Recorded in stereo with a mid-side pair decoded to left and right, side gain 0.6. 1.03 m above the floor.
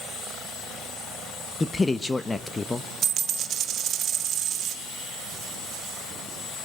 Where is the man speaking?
15° left, 0.8 m.